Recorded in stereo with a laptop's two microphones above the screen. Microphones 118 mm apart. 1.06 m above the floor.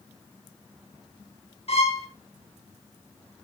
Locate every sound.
1.7 s a violin: 60° left (ahead or behind), 1.5 m